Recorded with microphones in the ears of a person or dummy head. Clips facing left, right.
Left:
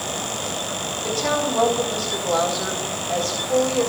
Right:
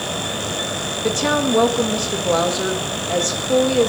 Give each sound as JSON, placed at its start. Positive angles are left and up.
{"t": 1.0, "sound": "a woman speaking", "side_deg": -45, "distance_m": 1.9}